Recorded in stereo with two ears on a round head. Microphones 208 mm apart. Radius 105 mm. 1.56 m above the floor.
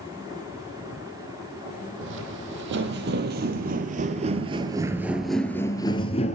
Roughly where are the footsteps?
Right.